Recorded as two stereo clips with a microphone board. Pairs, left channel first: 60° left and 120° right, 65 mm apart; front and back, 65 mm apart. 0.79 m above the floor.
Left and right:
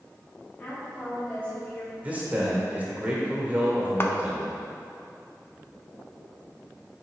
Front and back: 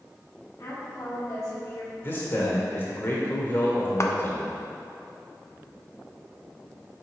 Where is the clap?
20° left, 0.5 m.